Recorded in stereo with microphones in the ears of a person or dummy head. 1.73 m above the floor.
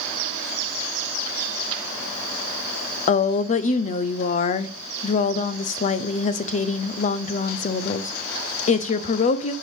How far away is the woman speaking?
About 0.7 m.